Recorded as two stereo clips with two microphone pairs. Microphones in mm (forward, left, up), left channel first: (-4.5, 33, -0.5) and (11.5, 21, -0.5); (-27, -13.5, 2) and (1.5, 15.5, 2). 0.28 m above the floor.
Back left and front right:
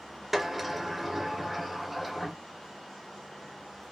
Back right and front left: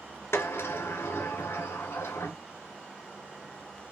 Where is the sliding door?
125° right, 0.7 m.